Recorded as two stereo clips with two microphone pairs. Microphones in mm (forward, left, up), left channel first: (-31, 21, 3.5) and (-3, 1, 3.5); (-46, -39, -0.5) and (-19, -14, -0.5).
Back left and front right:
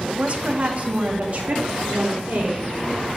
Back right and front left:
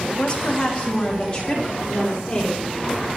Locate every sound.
0.1 s a woman speaking: 85° right, 0.9 m; by 2.7 s 80° right, 4.5 m